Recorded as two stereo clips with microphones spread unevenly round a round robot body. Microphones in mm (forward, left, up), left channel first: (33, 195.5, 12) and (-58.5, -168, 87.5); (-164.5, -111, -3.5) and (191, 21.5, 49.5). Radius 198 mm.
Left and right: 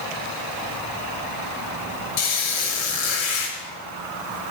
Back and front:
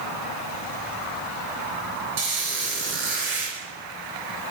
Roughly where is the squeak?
Left.